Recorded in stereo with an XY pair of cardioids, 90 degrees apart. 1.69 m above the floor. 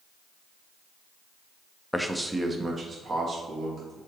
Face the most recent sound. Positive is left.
turn(degrees=-55)